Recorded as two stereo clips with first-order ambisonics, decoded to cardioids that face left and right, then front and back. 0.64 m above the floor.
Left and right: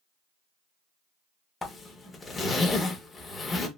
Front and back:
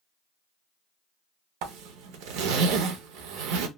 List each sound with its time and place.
1.6 s a zipper: 165° left, 0.6 m